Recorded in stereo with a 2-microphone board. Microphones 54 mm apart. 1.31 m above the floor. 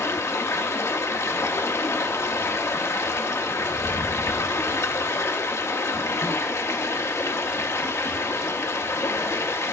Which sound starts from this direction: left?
Running water, at 0.0 s.